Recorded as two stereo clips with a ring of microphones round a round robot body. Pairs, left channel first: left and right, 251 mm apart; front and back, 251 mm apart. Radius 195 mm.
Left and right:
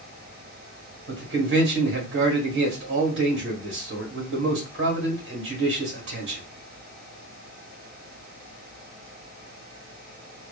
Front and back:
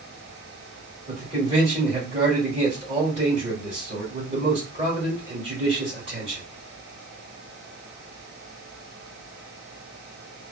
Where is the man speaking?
110° right, 1.7 m.